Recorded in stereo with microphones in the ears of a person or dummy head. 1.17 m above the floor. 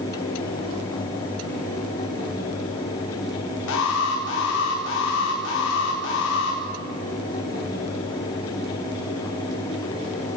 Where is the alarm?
65° left (ahead or behind), 5.5 m.